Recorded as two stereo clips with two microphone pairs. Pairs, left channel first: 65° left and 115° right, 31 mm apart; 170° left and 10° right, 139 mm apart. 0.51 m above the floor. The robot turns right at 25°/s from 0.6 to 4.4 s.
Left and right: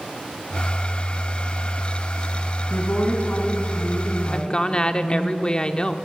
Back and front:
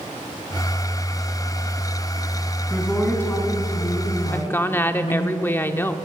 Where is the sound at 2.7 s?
80° left, 4 m; by 5.3 s 120° left, 4 m.